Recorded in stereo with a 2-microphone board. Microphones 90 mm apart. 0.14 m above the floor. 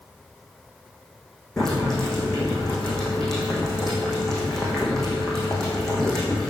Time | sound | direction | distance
1.6 | boiling | 5° left (ahead or behind) | 4 m